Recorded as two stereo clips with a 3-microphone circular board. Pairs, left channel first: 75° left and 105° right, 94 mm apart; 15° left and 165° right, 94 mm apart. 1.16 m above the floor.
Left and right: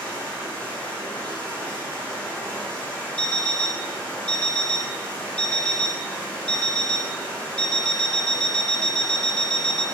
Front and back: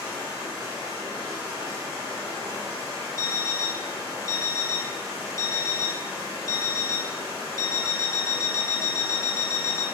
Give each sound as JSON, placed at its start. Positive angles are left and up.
{"t": 0.0, "sound": "running water", "azimuth_deg": 5, "distance_m": 1.7}
{"t": 3.2, "sound": "an alarm clock", "azimuth_deg": 10, "distance_m": 0.6}